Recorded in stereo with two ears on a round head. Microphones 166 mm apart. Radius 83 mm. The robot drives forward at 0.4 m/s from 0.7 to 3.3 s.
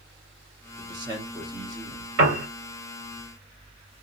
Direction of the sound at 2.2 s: 80° right.